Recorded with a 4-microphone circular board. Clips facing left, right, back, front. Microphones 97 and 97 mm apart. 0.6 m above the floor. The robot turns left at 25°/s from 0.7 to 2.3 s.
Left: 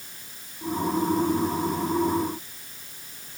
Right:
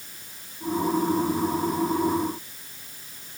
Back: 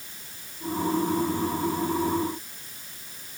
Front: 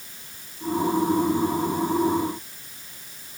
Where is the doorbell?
No doorbell in this recording.